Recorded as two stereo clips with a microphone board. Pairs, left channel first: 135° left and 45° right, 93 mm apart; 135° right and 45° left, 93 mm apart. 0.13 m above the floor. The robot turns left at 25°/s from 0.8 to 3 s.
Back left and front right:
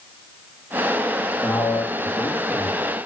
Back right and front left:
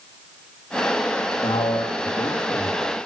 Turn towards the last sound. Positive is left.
turn(degrees=-165)